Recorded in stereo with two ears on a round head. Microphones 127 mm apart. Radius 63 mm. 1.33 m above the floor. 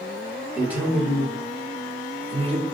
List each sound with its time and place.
0.5 s a man speaking: 10° right (ahead or behind), 1.4 m; by 2.6 s 45° right (ahead or behind), 0.7 m